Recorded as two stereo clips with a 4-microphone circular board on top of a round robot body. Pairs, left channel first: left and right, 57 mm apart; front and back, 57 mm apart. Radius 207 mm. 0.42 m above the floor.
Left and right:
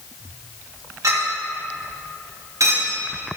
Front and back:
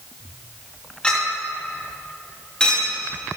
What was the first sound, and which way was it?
A clink, 75° right.